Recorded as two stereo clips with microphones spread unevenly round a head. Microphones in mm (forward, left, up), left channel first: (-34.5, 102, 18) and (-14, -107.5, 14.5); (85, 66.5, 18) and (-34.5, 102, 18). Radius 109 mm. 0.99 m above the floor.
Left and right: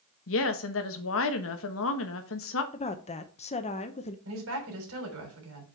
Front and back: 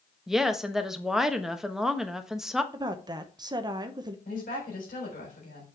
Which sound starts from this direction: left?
A woman speaking, at 0.3 s.